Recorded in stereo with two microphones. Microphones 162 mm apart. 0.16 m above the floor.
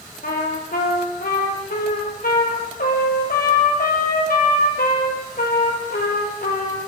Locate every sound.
0.2 s a trumpet: 75° left (ahead or behind), 4.5 m